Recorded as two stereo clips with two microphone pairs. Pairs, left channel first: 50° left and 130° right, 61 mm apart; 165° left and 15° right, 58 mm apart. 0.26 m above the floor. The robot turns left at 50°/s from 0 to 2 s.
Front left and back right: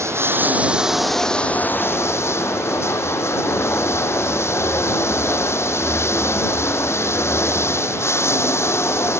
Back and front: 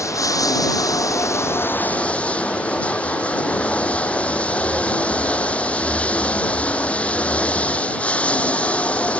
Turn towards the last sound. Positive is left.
turn(degrees=95)